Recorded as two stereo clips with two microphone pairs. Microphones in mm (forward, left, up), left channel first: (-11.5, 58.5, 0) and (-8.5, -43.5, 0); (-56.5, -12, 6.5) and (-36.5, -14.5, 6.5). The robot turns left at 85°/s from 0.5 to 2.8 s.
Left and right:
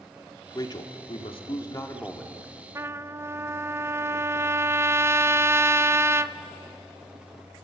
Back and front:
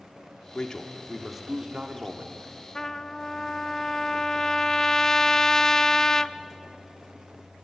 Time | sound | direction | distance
0.6 | a man speaking | 140° left | 2 m
2.8 | a trumpet | 140° right | 0.6 m